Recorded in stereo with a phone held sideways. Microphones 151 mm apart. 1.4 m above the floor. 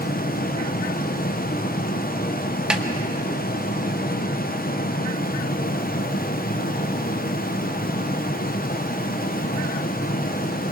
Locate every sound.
0.0 s a fan: 80° left, 0.8 m
2.7 s a snare drum: 5° right (ahead or behind), 1.1 m